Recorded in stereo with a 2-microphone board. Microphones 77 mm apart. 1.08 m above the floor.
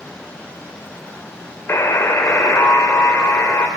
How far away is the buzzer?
About 1.0 m.